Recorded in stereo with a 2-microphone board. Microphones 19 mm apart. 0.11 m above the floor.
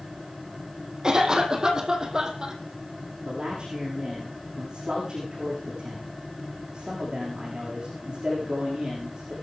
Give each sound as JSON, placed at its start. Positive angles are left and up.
{"t": 1.0, "sound": "a cough", "side_deg": -35, "distance_m": 4.5}
{"t": 3.2, "sound": "a man speaking", "side_deg": -45, "distance_m": 8.0}